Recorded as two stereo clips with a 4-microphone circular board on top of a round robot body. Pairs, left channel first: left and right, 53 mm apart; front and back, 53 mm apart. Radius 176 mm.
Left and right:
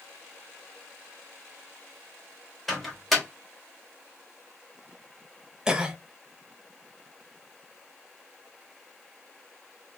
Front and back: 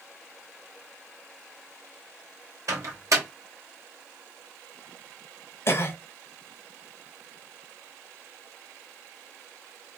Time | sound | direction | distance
2.7 | a microwave | 175° left | 1.3 m
5.7 | a cough | 15° right | 1.0 m